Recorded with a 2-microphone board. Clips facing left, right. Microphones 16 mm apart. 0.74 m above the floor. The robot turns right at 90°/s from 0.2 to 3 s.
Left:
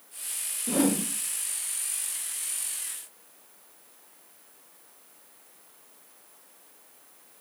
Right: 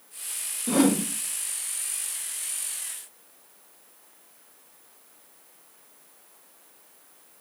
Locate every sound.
0.7 s a whoosh: 125° right, 1.3 m; by 1.0 s 90° right, 1.3 m